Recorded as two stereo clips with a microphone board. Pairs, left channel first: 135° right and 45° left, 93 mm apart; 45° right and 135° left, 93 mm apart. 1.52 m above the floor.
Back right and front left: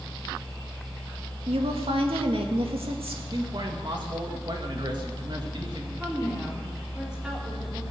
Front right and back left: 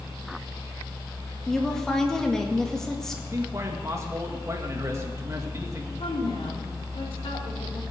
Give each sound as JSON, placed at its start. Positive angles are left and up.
{"t": 1.5, "sound": "a woman speaking", "azimuth_deg": 40, "distance_m": 2.0}
{"t": 3.3, "sound": "a man speaking", "azimuth_deg": 80, "distance_m": 2.0}
{"t": 6.0, "sound": "a woman speaking", "azimuth_deg": -35, "distance_m": 4.5}